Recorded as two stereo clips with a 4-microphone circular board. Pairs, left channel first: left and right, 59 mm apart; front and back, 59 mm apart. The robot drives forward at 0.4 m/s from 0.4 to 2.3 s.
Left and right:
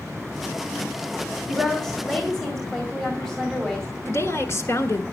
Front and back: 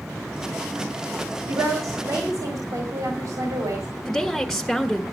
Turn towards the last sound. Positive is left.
turn(degrees=95)